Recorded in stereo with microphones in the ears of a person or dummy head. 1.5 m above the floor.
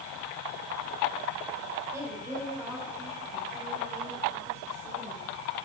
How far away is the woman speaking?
About 4 m.